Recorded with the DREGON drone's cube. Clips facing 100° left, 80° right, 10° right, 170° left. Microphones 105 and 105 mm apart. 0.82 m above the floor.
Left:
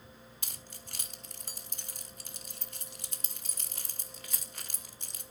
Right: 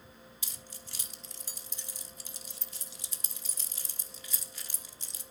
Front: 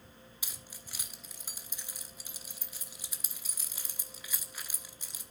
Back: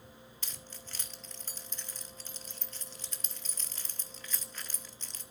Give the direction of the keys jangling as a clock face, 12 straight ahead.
10 o'clock.